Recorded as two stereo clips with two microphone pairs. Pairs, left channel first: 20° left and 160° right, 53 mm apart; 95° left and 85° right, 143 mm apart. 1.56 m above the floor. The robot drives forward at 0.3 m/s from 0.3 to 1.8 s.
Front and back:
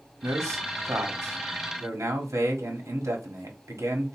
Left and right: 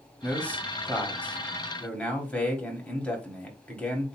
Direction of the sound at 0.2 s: 175° left.